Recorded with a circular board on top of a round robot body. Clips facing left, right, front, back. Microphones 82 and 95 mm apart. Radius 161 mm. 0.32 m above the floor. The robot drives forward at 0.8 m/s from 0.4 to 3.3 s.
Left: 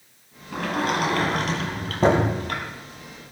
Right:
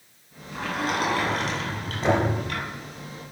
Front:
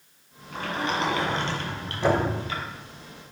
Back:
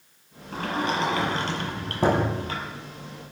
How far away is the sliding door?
About 7 m.